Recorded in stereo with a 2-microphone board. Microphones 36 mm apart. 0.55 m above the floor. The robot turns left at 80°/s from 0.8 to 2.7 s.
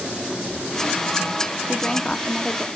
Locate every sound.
1.7 s a woman speaking: 15° left (ahead or behind), 0.9 m